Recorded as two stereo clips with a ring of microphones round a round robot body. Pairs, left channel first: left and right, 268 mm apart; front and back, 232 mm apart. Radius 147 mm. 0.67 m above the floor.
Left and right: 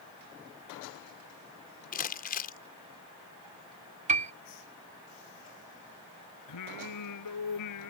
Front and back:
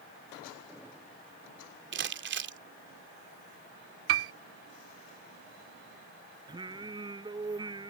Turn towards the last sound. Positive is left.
turn(degrees=110)